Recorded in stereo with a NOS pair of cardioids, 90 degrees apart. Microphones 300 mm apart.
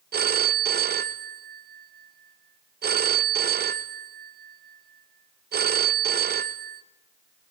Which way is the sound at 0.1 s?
35° right.